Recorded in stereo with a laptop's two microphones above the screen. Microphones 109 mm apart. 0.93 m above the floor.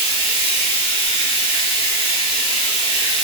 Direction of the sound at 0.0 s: 60° left (ahead or behind).